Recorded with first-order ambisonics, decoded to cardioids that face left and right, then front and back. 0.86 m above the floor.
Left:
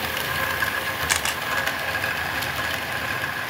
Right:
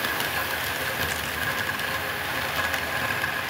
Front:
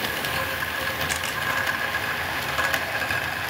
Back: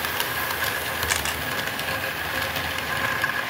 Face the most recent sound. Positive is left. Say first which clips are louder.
# left 5 dB, back 1 dB
turn(degrees=105)